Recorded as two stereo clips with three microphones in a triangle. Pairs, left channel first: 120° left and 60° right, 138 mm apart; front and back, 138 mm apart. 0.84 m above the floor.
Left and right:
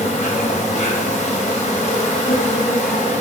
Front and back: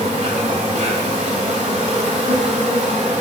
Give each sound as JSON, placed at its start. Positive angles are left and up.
{"t": 0.0, "sound": "an insect", "azimuth_deg": 150, "distance_m": 2.5}